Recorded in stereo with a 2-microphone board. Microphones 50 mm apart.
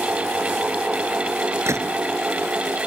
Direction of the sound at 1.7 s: 70° right (ahead or behind).